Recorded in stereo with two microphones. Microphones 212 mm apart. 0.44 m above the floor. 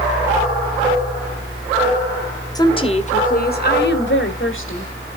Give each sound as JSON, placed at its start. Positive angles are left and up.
{"t": 2.5, "sound": "a woman speaking", "side_deg": 15, "distance_m": 1.5}